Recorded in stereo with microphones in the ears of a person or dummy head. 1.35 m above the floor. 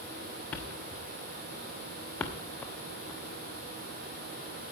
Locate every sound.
0.5 s a thud: 5° left (ahead or behind), 1.0 m